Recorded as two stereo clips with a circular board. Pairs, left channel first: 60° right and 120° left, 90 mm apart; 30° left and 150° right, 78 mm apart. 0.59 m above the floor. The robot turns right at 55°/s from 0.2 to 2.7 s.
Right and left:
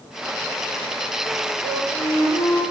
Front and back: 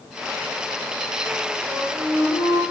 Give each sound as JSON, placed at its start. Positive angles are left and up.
{"t": 1.6, "sound": "a flute", "azimuth_deg": -65, "distance_m": 5.5}